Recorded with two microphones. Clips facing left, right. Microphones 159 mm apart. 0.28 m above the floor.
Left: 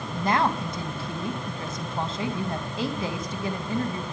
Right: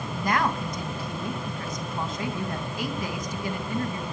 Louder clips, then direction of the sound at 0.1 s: Left 2 dB; 30° left (ahead or behind).